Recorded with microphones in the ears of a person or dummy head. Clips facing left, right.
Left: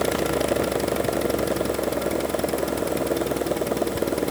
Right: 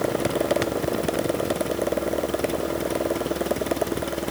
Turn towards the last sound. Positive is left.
No sound to turn to.